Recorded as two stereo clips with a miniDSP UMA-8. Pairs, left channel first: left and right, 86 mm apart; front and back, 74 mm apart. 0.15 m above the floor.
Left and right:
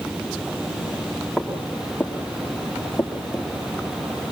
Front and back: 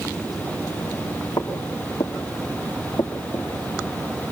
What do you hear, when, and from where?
1.4 s footsteps: straight ahead, 4.5 m; by 3.5 s 20° left, 3.5 m